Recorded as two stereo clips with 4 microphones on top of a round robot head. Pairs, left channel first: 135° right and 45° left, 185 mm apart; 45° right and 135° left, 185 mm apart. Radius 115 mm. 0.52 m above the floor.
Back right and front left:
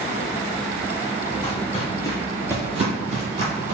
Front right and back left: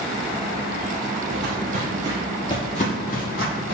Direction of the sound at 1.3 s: 175° left.